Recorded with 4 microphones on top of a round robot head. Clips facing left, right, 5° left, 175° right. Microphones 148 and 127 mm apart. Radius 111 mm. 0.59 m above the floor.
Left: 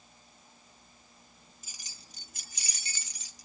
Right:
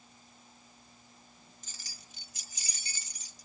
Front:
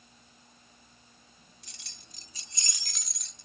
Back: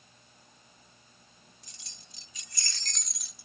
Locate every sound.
1.6 s keys jangling: 10° left; by 3.5 s 105° left